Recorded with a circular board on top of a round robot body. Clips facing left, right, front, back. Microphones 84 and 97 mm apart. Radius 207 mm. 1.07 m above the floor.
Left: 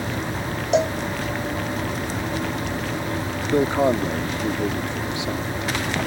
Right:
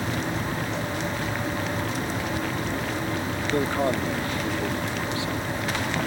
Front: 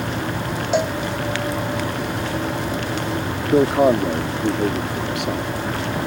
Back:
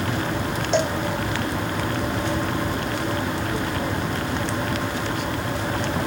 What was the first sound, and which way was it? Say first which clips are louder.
A cowbell: left 10 dB, front 2 dB; 85° left.